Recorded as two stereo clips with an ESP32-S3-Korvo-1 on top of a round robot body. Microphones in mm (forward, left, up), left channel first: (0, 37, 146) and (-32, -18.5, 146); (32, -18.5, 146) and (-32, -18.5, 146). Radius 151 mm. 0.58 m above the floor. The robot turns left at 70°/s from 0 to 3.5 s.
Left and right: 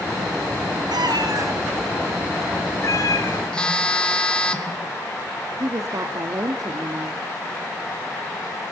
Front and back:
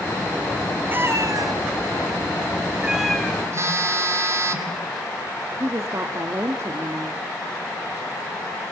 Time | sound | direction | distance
0.9 | a cat meowing | 115° right | 1.8 m
3.5 | a phone buzzing | 135° left | 2 m
5.6 | a woman speaking | 140° right | 1.3 m